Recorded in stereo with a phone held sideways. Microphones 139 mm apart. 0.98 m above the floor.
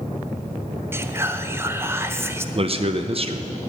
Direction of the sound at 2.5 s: 45° right (ahead or behind).